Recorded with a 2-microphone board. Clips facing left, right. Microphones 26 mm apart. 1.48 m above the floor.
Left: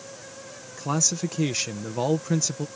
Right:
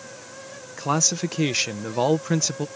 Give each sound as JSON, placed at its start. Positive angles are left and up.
{"t": 0.8, "sound": "a man speaking", "side_deg": -25}